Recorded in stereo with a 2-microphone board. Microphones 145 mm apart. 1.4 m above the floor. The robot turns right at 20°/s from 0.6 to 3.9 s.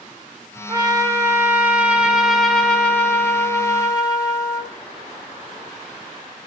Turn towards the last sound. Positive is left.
turn(degrees=30)